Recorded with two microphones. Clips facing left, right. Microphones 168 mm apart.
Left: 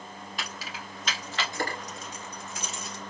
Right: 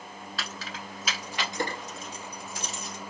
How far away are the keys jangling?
About 1.0 m.